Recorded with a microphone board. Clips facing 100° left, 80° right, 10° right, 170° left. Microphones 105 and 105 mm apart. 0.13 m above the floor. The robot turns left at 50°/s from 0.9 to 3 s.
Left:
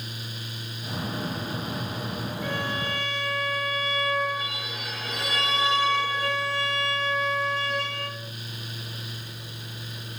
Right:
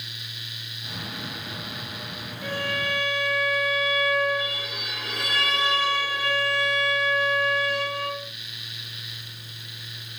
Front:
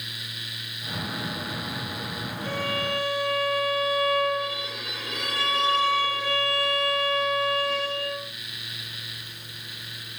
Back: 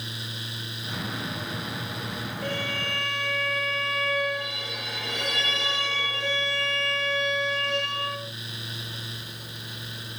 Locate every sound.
2.4 s a violin: 160° right, 8.5 m; by 8.2 s 170° left, 8.5 m